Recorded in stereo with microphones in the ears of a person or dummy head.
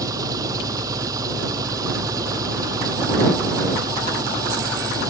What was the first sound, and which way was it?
An engine running, 25° right (ahead or behind).